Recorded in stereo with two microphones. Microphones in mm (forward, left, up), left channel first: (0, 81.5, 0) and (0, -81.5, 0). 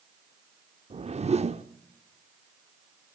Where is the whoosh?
40° right (ahead or behind), 0.7 m.